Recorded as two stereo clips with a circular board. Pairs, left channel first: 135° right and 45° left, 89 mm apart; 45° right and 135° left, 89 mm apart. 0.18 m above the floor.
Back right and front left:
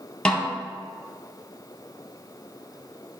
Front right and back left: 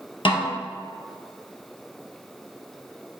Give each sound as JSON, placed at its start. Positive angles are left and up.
{"t": 0.2, "sound": "a snare drum", "azimuth_deg": -55, "distance_m": 1.1}